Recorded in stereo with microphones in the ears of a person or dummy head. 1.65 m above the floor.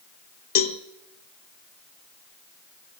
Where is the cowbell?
45° left (ahead or behind), 0.7 m.